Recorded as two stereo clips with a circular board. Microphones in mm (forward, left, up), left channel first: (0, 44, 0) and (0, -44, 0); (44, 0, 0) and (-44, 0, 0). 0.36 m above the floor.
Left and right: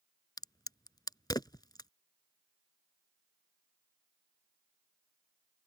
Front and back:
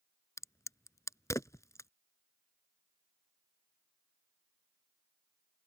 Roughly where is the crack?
Ahead left.